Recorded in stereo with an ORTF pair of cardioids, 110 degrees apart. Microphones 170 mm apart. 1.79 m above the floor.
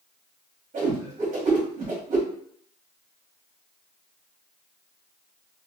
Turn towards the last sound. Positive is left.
turn(degrees=-50)